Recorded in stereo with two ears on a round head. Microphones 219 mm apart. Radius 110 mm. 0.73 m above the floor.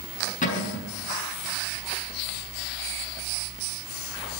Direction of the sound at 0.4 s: 35° left (ahead or behind).